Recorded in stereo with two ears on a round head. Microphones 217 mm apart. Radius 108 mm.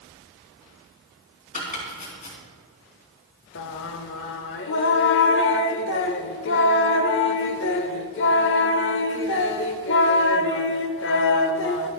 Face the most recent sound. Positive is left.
turn(degrees=50)  # may be behind; listen again after turning